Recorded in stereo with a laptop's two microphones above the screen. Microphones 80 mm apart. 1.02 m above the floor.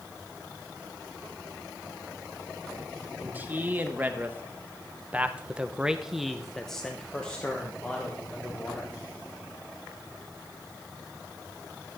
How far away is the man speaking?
About 1.6 m.